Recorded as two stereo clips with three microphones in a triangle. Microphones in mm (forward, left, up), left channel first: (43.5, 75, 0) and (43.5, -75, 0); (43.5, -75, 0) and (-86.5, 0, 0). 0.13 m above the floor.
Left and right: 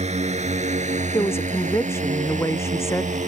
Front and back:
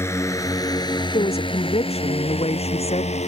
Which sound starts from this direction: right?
A drone, at 0.0 s.